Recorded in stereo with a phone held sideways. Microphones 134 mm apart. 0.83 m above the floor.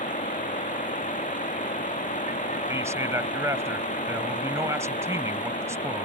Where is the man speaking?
20° right (ahead or behind).